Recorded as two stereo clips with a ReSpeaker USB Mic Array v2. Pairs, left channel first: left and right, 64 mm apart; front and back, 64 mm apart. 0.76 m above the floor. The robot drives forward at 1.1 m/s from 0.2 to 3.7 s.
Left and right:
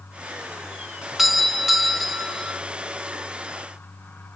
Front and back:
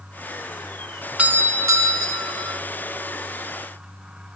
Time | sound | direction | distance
1.2 | a doorbell | 170° right | 0.8 m